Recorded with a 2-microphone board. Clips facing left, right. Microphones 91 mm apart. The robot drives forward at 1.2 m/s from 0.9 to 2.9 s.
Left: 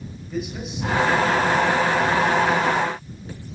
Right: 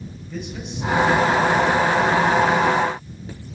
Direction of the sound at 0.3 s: 10° left (ahead or behind).